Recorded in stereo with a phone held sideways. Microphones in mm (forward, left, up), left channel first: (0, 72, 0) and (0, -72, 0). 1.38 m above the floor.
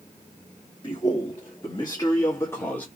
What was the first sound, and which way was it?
A man speaking, 40° left (ahead or behind).